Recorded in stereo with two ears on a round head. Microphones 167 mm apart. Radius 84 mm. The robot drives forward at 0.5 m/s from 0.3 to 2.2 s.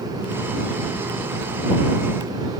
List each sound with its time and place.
Only background noise.